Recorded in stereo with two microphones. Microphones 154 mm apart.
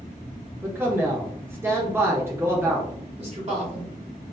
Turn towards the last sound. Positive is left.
turn(degrees=-40)  # may be behind; listen again after turning